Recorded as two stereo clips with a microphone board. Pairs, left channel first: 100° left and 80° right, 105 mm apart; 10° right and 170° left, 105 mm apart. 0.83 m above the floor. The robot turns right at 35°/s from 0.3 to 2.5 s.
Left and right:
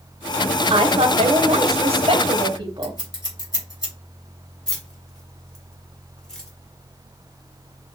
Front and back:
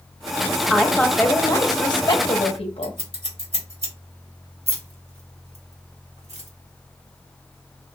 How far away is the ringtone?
I don't hear a ringtone.